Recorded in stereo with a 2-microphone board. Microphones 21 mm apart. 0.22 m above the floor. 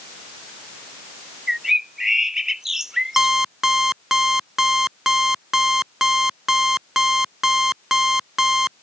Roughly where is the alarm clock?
Centre.